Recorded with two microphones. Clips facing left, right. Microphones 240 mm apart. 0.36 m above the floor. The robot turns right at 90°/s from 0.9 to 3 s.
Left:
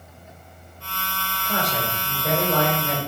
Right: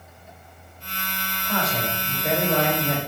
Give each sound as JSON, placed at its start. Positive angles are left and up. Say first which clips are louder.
{"t": 1.4, "sound": "a man speaking", "louder": "even", "side_deg": 20, "distance_m": 1.0}